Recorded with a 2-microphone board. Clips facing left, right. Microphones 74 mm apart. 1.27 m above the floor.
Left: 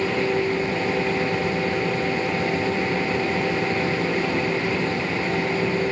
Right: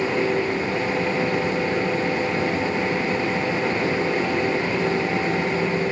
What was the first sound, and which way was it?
Only background noise.